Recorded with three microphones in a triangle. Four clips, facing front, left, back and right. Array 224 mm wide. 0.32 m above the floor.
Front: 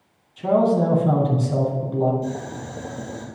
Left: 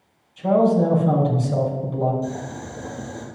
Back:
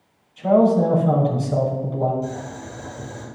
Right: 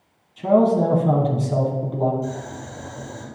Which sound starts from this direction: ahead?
Boiling, at 2.2 s.